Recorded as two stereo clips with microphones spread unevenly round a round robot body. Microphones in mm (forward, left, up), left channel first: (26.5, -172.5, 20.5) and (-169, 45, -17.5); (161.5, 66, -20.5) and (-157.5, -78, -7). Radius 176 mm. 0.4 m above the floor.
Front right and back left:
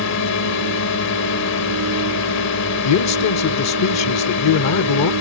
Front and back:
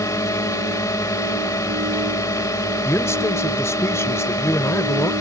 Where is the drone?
55° right.